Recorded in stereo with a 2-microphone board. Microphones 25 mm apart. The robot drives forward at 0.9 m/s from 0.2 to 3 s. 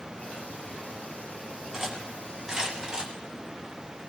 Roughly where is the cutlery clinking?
Right.